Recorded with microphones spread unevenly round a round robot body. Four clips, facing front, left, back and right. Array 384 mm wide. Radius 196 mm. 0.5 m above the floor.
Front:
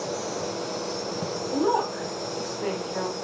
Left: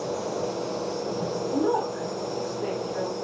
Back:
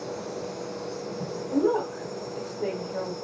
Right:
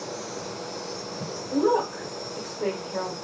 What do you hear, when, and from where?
0.0 s an insect: 110° left, 2 m
1.5 s a woman speaking: 165° right, 1.1 m